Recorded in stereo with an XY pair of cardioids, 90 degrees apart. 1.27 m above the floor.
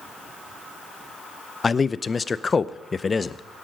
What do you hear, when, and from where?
1.6 s a man speaking: 30° left, 0.6 m